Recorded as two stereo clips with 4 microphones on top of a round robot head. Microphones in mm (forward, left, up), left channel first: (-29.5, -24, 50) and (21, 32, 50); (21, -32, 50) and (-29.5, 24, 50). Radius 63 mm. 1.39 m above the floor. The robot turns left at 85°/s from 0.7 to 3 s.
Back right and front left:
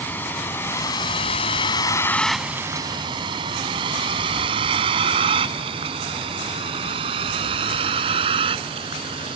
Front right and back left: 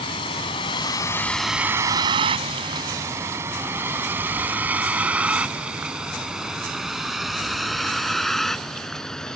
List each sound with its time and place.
0.0 s a vehicle: 60° right; by 9.4 s 35° left